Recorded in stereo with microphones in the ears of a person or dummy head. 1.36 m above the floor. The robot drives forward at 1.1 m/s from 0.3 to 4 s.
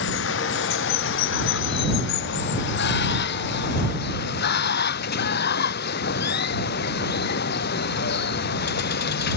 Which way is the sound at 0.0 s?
65° left (ahead or behind).